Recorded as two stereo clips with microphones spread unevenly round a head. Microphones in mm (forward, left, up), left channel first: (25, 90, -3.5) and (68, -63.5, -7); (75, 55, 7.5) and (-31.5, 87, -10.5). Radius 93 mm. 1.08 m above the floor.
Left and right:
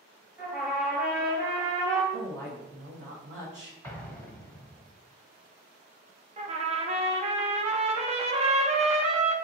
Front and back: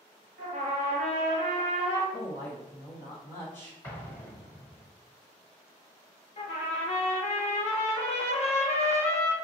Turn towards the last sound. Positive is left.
turn(degrees=-25)